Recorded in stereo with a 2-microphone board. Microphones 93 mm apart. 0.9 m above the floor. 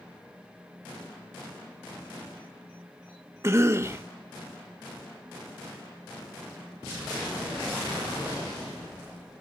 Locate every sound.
3.4 s a cough: 30° right (ahead or behind), 0.9 m